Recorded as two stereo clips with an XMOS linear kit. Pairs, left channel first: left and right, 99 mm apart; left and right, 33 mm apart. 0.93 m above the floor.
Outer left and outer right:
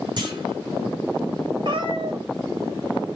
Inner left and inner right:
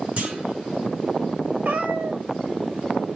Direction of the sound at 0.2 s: 50° right (ahead or behind).